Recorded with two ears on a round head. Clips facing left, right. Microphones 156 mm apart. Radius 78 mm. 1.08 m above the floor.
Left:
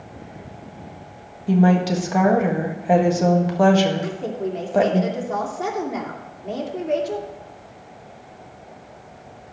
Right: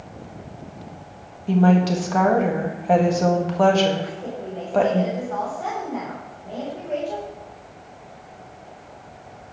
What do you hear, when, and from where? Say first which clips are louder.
1.5 s a woman speaking: even; 10° left (ahead or behind), 1.4 m
4.0 s a woman speaking: left 5 dB; 85° left, 3 m